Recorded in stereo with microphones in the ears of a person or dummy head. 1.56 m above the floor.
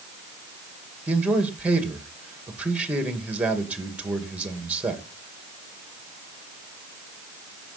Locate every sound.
1.1 s a man speaking: 10° right (ahead or behind), 2.5 m